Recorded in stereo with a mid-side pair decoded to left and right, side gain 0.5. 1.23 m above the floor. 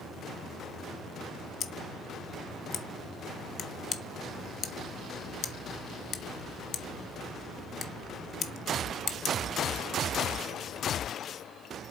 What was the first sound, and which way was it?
Scissors, 50° left.